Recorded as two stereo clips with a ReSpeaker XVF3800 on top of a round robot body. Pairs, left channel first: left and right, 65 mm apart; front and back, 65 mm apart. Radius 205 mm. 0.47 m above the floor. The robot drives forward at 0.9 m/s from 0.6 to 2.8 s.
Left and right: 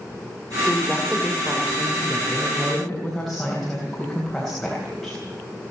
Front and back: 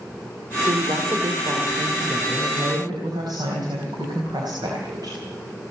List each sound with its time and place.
0.7 s a woman speaking: 175° left, 1.8 m; by 5.2 s straight behind, 3.5 m